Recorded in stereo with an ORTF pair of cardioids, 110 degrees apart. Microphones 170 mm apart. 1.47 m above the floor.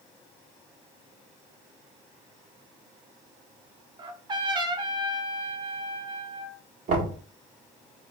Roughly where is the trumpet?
Ahead right.